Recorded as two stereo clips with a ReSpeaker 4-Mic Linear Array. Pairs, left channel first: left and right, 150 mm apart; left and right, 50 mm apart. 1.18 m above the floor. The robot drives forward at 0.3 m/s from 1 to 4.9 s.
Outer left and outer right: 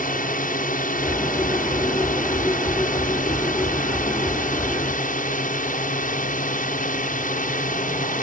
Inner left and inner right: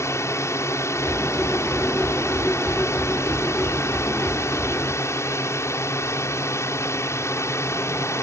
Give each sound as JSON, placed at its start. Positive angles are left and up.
{"t": 0.0, "sound": "a drone", "side_deg": 70}